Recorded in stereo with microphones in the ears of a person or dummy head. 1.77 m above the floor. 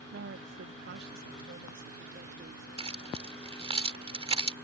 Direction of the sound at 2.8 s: 35° right (ahead or behind).